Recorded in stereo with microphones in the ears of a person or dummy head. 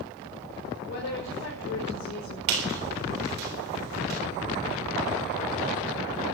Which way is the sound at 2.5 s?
60° right (ahead or behind).